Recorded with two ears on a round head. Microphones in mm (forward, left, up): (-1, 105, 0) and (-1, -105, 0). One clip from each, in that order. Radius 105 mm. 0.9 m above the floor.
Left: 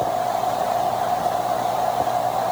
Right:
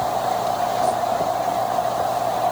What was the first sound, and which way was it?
Only background noise.